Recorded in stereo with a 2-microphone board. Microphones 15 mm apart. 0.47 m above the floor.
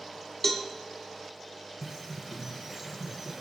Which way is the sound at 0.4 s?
25° left (ahead or behind).